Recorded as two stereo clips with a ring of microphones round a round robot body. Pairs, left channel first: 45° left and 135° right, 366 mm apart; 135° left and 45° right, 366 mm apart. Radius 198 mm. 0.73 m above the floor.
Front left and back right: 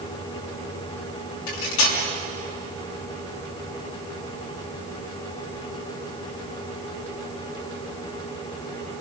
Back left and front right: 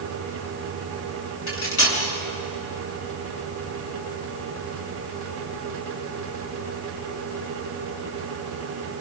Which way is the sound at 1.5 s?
80° left.